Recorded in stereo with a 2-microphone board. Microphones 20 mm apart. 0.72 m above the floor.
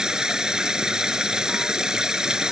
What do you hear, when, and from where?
0.0 s running water: 40° right (ahead or behind)